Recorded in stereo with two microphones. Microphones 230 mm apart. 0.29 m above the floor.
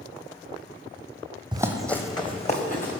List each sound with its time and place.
1.5 s running footsteps: 20° right (ahead or behind), 0.6 m; by 3.0 s 40° left (ahead or behind), 1.4 m